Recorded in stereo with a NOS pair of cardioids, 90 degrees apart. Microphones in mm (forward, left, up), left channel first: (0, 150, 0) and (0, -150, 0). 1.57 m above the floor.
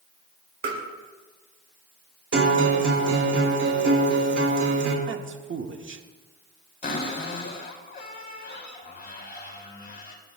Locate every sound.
0.6 s tapping: 65° right, 4 m
2.3 s a guitar: 55° right, 3.5 m
5.1 s a man speaking: 45° right, 1.7 m
6.8 s a cupboard door: 30° left, 3.5 m